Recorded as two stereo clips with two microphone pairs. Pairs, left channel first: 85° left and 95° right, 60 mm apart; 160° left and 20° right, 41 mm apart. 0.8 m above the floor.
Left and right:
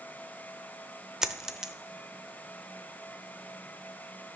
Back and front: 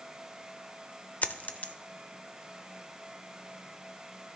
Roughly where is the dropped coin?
Behind.